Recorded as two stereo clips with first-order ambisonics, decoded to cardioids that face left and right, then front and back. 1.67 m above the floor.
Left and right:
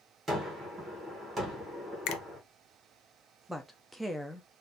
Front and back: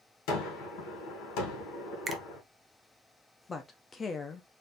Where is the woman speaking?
10° right, 0.6 m.